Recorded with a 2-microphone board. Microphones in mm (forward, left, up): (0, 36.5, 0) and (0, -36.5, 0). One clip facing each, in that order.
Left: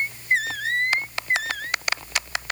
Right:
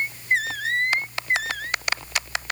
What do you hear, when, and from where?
Only background noise.